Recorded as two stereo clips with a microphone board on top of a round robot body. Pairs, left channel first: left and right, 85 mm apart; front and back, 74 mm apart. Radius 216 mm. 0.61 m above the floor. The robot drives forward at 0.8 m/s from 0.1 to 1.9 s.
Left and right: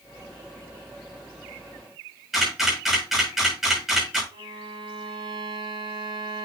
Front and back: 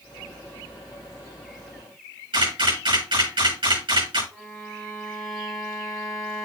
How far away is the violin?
About 3.5 m.